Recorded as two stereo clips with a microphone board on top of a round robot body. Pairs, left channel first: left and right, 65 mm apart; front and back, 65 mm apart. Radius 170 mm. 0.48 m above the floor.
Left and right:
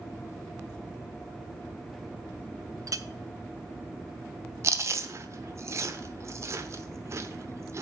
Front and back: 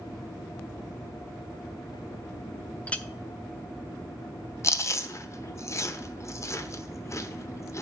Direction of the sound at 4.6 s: 45° right.